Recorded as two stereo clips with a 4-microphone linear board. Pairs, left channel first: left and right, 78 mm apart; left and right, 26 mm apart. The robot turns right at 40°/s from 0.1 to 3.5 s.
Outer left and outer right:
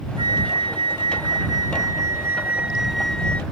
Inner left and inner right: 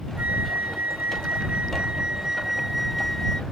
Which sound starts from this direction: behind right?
A flute, at 0.2 s.